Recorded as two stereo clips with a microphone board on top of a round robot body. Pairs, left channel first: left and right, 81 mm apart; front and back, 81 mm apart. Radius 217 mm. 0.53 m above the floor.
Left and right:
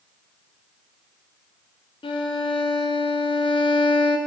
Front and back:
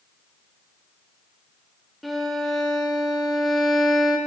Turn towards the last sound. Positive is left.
turn(degrees=90)